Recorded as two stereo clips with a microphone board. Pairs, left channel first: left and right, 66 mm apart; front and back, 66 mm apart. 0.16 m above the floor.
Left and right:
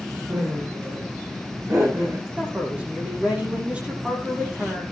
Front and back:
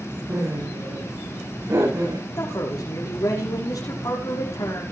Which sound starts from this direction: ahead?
A man speaking, at 2.4 s.